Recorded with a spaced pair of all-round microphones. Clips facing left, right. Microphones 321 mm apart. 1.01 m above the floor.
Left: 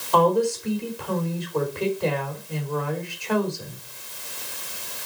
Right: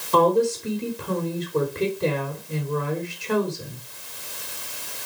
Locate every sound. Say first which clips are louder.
0.1 s a woman speaking: right 1 dB; 25° right (ahead or behind), 3.5 m